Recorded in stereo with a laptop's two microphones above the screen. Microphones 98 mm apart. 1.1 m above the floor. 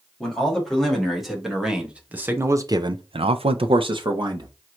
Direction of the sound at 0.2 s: 5° left (ahead or behind).